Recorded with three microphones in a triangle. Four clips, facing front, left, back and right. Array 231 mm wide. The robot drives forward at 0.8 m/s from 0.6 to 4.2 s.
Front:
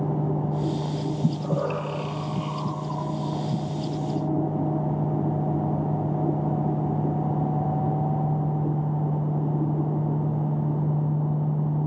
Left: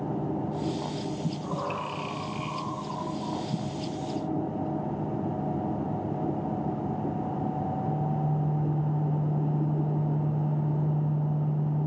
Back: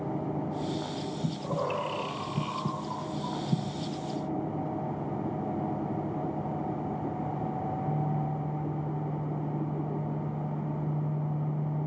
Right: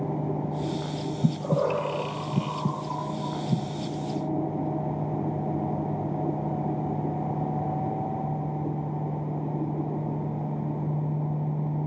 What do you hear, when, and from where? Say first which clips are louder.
1.2 s breathing: right 6 dB, front 5 dB; 65° right, 2.5 m; by 3.8 s 120° right, 2.5 m